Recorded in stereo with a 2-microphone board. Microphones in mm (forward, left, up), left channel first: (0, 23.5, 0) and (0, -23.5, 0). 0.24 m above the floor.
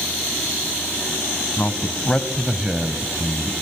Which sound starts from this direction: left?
A man speaking, at 1.6 s.